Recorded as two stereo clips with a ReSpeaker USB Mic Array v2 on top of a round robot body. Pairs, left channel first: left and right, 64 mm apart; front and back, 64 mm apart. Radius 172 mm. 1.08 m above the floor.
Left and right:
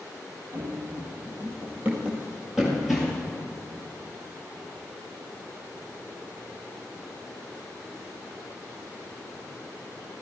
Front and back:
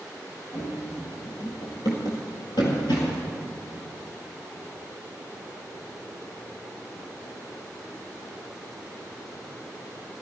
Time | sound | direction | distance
0.5 | running footsteps | 45° right | 2 m